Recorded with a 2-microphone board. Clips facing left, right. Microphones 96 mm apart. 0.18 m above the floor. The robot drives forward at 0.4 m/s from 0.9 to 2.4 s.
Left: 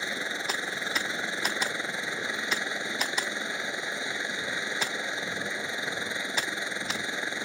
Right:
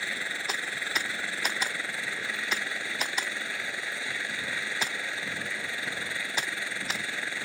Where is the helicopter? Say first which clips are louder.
Left 2 dB; 20° left (ahead or behind).